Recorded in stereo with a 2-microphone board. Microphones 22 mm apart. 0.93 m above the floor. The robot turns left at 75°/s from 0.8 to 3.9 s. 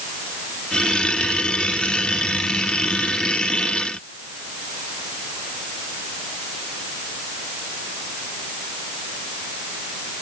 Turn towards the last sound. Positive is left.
No sound to turn to.